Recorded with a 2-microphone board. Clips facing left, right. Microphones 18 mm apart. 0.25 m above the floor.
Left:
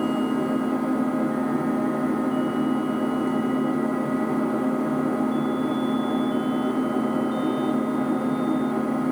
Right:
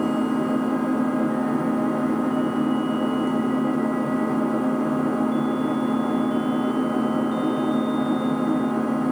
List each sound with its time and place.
0.0 s an engine running: 25° right (ahead or behind), 2 m